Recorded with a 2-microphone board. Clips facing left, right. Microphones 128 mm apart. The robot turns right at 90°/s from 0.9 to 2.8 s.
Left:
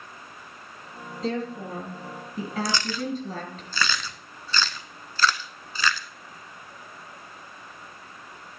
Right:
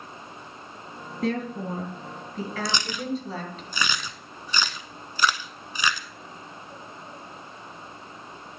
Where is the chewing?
25° right (ahead or behind), 0.6 m; by 6.1 s 15° right (ahead or behind), 0.6 m.